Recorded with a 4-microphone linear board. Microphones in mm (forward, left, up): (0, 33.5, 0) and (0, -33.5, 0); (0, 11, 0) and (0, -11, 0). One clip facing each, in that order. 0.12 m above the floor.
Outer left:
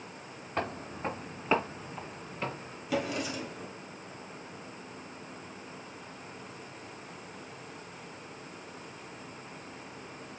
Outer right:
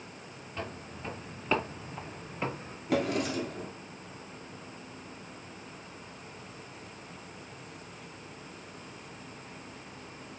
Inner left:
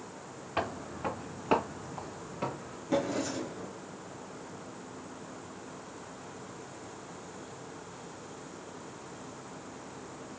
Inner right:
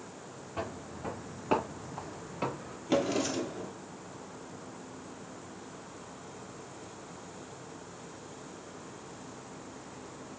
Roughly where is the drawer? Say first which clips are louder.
Outer right 3 dB, inner right 2 dB; right.